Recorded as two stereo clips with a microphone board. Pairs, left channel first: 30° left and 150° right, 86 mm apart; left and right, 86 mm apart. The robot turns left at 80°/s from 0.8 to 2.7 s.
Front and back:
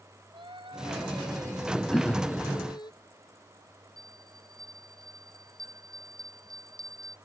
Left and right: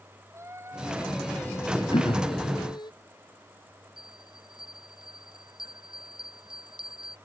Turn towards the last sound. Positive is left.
turn(degrees=-110)